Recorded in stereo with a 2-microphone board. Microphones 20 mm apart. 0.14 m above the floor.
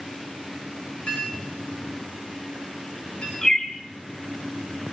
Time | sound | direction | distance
1.1 | a clink | 85° left | 9 m
3.4 | a bird | 35° left (ahead or behind) | 3 m